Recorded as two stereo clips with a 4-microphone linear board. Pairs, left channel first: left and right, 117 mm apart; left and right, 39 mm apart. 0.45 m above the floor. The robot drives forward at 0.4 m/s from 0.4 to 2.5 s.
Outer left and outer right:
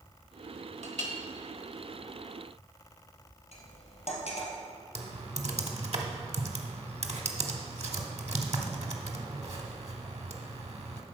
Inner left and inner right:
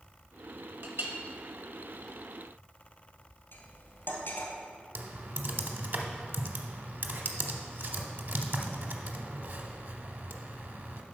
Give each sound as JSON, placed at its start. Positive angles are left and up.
{"t": 0.8, "sound": "a clink", "side_deg": -70, "distance_m": 1.0}
{"t": 3.5, "sound": "cutlery clinking", "side_deg": 75, "distance_m": 1.8}
{"t": 5.0, "sound": "typing on a keyboard", "side_deg": -65, "distance_m": 0.8}